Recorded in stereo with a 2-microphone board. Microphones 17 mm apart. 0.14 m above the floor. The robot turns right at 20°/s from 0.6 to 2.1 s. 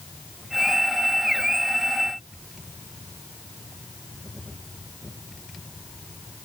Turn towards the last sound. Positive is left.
No sound to turn to.